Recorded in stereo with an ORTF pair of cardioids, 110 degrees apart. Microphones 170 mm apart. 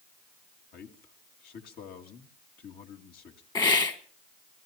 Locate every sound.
0.7 s a man speaking: 65° left, 2.5 m
3.5 s a hiss: 25° left, 1.6 m